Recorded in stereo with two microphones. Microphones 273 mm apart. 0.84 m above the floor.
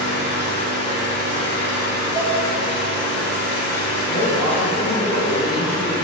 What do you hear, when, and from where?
0.0 s an engine running: 40° left (ahead or behind), 1.0 m
2.1 s dishes clattering: 5° left (ahead or behind), 1.0 m
4.1 s a woman speaking: 50° left (ahead or behind), 0.9 m